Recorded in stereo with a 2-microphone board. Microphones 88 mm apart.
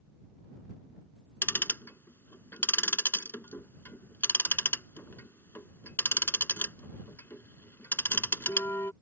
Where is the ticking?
25° left (ahead or behind).